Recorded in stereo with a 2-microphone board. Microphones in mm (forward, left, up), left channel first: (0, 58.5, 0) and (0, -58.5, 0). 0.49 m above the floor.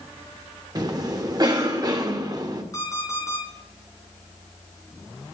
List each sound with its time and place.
0.8 s a cough: 35° right (ahead or behind), 1.7 m
2.7 s an alarm clock: 30° left (ahead or behind), 4 m